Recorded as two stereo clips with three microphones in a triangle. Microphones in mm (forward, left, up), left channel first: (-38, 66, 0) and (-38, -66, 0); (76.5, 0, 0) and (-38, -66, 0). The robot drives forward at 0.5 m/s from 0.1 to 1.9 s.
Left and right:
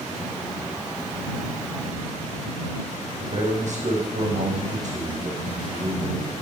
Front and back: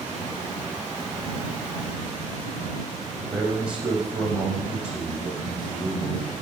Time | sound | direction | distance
3.2 | a man speaking | 70° right | 6 m